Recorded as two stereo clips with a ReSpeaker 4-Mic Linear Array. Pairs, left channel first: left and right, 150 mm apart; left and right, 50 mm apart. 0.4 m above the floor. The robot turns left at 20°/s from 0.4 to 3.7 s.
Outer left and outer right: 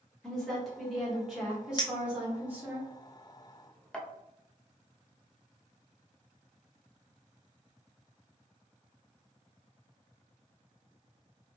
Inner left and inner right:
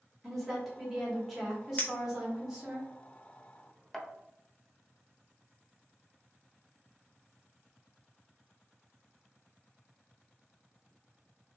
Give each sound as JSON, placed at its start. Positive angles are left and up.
{"t": 0.2, "sound": "a woman speaking", "side_deg": 5, "distance_m": 1.3}
{"t": 1.8, "sound": "a clink", "side_deg": 30, "distance_m": 0.7}